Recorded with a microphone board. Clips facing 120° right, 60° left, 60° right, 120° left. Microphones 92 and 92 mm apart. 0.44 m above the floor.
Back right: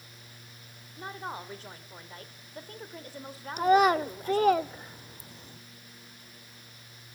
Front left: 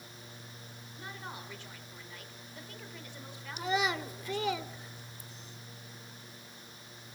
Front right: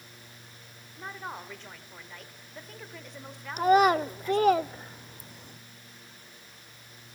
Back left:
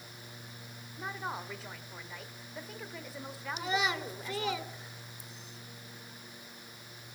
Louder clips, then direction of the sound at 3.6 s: Back right 11 dB, front right 13 dB; 90° right.